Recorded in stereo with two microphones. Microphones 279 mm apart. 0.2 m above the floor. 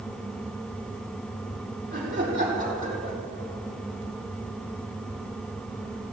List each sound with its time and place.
1.9 s laughter: 30° right (ahead or behind), 7 m